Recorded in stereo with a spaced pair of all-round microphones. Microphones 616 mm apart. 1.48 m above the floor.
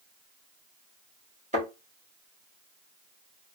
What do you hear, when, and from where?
1.5 s a thud: 10° right (ahead or behind), 1.6 m